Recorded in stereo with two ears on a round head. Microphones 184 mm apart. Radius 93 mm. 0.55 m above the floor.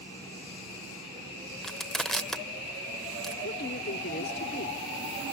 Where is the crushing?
Centre (ahead or behind), 0.7 m.